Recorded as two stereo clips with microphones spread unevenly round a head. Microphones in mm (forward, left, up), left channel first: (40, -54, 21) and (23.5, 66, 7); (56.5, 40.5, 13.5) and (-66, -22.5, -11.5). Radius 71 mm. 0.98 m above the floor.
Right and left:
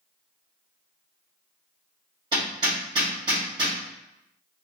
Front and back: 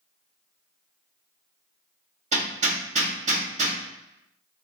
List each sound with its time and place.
2.3 s hammering: 165° left, 2 m